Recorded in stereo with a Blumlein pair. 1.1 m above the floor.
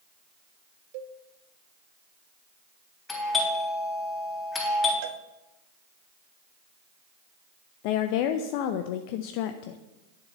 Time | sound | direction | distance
0.9 | a cowbell | 45° right | 0.9 m
3.1 | a doorbell | 15° left | 3.5 m
5.0 | a cowbell | 50° right | 0.7 m
7.8 | a woman speaking | 45° left | 0.6 m